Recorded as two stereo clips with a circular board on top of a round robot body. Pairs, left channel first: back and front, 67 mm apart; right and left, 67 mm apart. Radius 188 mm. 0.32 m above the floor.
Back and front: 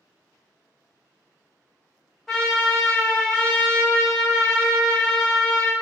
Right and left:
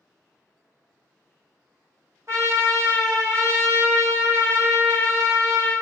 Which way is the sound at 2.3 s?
90° left.